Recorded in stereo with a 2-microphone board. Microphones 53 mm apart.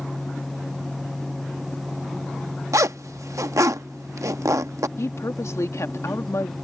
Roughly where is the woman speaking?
Left.